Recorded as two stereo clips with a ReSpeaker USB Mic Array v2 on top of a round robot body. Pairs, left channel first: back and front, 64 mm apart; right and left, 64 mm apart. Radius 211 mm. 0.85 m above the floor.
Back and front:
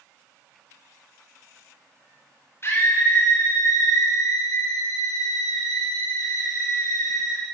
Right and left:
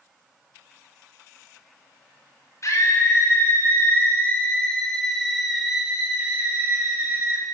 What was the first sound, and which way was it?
A scream, 130° right.